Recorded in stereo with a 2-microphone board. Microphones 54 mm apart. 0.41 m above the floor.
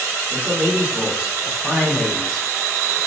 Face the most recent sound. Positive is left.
turn(degrees=20)  # may be behind; listen again after turning